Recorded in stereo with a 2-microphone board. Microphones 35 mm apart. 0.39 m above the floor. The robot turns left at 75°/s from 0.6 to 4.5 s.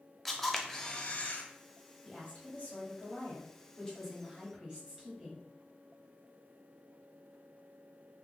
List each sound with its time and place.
0.2 s a camera shutter: straight behind, 0.6 m; by 1.4 s 115° left, 0.6 m
2.0 s a woman speaking: 165° left, 1.9 m; by 5.4 s 20° right, 1.9 m